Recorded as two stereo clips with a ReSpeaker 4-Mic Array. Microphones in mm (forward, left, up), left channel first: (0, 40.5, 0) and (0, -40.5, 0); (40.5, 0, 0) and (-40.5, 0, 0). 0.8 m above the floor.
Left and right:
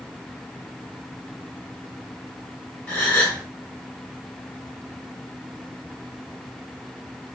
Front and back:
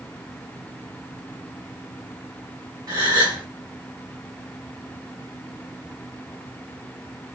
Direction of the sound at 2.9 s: 165° left.